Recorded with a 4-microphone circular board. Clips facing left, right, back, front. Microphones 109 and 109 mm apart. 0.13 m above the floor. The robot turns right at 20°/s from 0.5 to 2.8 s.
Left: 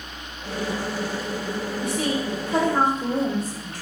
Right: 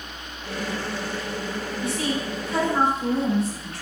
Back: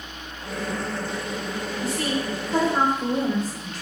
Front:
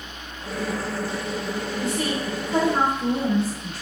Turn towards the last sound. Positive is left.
turn(degrees=60)